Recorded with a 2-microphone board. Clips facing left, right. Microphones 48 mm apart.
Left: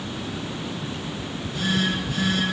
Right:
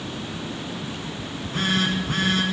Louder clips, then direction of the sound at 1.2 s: Right 2 dB; 50° right (ahead or behind).